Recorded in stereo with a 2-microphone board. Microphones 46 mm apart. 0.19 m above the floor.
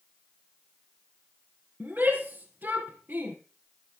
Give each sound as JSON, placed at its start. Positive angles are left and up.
{"t": 1.8, "sound": "a shout", "side_deg": -45, "distance_m": 3.0}